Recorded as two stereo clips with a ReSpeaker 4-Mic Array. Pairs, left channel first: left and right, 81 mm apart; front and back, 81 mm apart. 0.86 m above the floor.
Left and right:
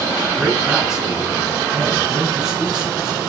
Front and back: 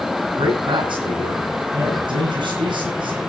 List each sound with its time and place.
0.4 s a man speaking: 170° right, 9.5 m